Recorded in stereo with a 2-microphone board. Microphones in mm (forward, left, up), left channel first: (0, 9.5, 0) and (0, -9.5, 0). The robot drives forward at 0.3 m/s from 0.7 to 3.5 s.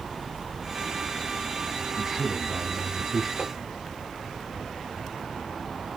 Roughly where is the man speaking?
Centre.